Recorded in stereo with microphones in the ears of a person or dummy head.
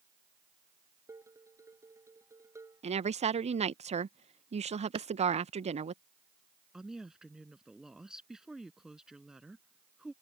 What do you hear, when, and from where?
1.1 s dishes clattering: 20° right (ahead or behind)
2.8 s a woman speaking: 40° right (ahead or behind)
5.0 s a clap: 20° right (ahead or behind)
6.7 s a woman speaking: centre (ahead or behind)